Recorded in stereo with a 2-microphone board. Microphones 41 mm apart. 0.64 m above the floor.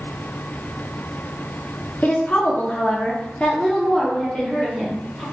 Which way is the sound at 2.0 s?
45° left (ahead or behind).